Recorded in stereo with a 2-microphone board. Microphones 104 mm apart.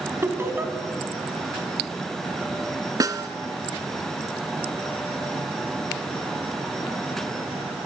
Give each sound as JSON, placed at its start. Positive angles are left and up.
{"t": 0.2, "sound": "laughter", "side_deg": -25, "distance_m": 2.5}
{"t": 3.0, "sound": "a snare drum", "side_deg": -35, "distance_m": 1.1}